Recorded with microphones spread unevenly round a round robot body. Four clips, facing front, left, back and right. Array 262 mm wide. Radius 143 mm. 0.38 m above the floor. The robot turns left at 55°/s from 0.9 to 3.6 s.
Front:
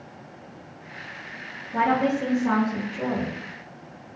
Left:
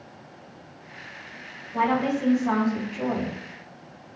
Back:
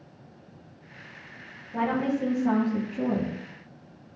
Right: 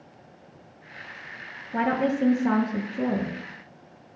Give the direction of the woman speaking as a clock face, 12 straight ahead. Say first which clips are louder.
Left 1 dB, front 4 dB; 2 o'clock.